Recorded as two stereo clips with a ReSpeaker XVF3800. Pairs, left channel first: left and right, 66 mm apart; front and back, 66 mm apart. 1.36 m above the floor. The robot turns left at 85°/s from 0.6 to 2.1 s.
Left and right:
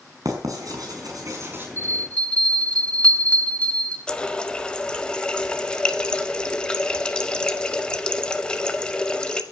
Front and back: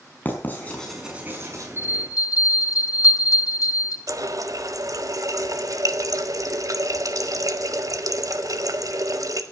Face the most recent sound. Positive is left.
turn(degrees=165)